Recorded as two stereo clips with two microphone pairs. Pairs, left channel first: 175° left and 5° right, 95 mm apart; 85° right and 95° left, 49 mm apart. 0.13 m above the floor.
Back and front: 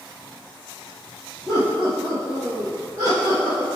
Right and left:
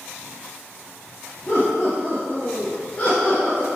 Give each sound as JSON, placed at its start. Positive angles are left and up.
{"t": 1.5, "sound": "laughter", "azimuth_deg": -85, "distance_m": 1.8}